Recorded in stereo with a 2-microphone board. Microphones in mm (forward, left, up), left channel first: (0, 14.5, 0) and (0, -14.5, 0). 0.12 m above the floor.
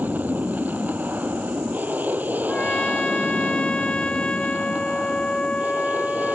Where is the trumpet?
35° left (ahead or behind).